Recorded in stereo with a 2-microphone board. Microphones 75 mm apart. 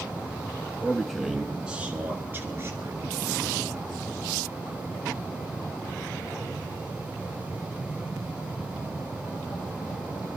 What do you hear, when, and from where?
0.8 s a man speaking: 10° left (ahead or behind), 1.3 m; by 3.3 s 40° right (ahead or behind), 2.5 m